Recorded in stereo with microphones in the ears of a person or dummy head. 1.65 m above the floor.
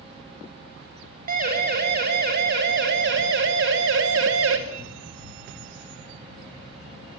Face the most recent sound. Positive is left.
turn(degrees=-70)  # may be behind; listen again after turning